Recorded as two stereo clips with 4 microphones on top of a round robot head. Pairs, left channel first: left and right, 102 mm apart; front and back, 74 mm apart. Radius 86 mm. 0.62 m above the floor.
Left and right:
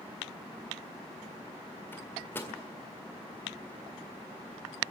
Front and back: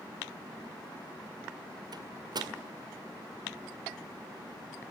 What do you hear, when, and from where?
1.9 s a microwave: 160° left, 1.8 m